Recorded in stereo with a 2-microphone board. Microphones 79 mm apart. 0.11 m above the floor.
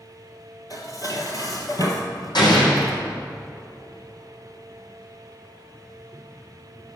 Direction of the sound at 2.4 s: 65° left (ahead or behind).